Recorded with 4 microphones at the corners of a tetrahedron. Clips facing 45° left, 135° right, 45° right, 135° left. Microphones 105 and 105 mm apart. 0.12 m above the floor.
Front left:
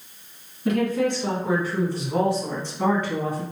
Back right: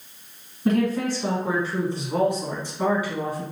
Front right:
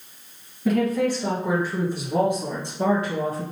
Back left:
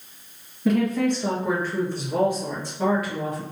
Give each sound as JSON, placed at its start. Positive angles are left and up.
{"t": 0.7, "sound": "a woman speaking", "azimuth_deg": -135, "distance_m": 1.9}